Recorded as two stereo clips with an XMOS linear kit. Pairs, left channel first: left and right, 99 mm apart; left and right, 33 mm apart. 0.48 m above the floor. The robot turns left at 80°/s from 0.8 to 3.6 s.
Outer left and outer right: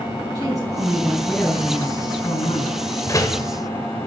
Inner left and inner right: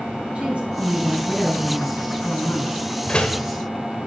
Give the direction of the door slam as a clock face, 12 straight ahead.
7 o'clock.